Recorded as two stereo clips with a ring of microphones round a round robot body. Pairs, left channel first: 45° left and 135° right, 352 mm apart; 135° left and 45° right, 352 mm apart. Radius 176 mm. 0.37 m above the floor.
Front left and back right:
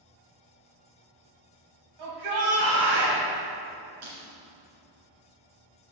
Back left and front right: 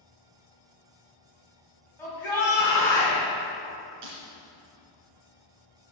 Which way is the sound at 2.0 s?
140° right.